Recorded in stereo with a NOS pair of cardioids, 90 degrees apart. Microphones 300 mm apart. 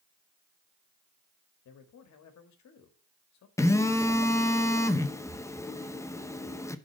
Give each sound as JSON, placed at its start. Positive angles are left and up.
{"t": 1.6, "sound": "a man speaking", "azimuth_deg": 65, "distance_m": 1.7}
{"t": 3.6, "sound": "a phone buzzing", "azimuth_deg": 10, "distance_m": 0.7}